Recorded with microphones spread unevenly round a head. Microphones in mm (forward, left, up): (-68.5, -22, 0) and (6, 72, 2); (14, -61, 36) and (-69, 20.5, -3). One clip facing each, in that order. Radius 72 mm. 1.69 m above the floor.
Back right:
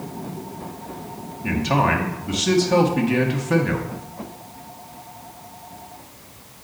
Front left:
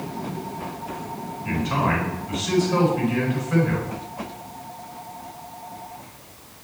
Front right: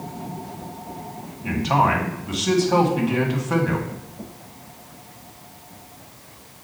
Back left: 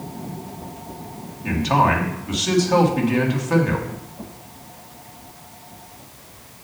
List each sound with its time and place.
1.4 s a man speaking: 125° right, 1.7 m